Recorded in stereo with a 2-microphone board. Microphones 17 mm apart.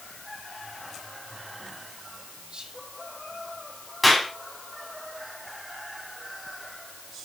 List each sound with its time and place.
2.5 s whispering: 55° right (ahead or behind), 2.5 m
4.0 s a clap: 5° left (ahead or behind), 3.5 m